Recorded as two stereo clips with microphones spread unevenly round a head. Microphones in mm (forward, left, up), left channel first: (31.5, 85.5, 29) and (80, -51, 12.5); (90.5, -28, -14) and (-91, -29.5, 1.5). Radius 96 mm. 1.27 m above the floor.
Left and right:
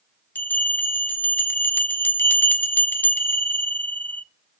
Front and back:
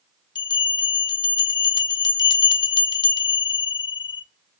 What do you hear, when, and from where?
0.3 s a bell: 55° left, 0.7 m